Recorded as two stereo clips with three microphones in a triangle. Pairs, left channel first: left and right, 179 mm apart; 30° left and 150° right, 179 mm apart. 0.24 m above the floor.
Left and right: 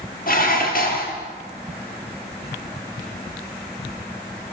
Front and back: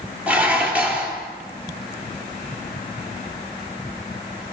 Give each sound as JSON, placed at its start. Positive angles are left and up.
{"t": 0.3, "sound": "dishes clattering", "azimuth_deg": 130, "distance_m": 4.5}